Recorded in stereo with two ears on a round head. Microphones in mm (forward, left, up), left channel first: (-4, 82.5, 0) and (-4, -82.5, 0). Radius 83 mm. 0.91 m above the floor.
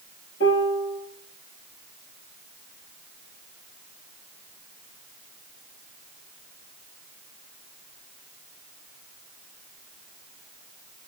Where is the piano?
60° left (ahead or behind), 5.5 m.